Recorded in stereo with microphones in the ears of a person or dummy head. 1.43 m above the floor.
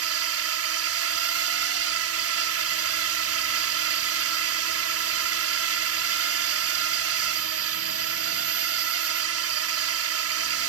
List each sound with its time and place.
0.0 s a drone: 70° right (ahead or behind)